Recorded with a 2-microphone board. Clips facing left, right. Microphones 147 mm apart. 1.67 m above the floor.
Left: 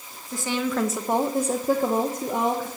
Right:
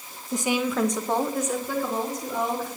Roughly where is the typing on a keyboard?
I don't hear typing on a keyboard.